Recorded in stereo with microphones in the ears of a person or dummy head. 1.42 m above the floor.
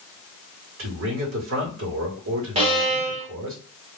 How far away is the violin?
About 0.9 m.